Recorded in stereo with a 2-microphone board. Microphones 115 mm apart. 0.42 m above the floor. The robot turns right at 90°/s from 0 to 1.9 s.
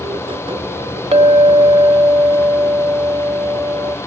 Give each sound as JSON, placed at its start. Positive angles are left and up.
{"t": 1.1, "sound": "a clink", "azimuth_deg": -100, "distance_m": 0.9}